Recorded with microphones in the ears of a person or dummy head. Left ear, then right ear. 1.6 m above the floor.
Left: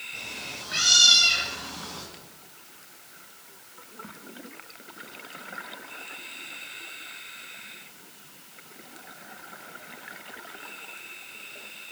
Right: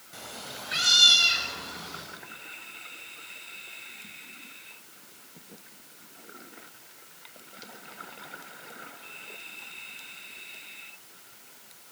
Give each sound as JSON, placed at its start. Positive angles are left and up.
{"t": 0.1, "sound": "a cat meowing", "side_deg": -40, "distance_m": 2.0}